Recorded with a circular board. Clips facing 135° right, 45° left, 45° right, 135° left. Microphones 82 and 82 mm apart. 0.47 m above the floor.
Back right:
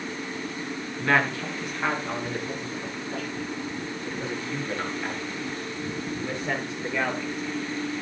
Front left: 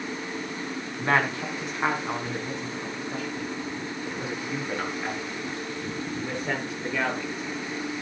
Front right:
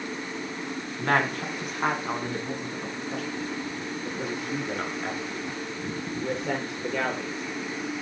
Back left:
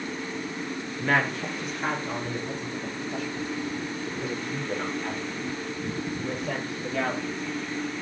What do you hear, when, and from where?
1.0 s a woman speaking: 15° right, 3.5 m; by 7.4 s 40° right, 8 m